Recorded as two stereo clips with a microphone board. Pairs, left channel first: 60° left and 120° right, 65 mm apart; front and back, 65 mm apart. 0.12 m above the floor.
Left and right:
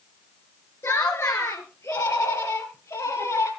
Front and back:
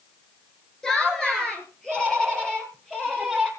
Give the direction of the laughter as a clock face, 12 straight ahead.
9 o'clock.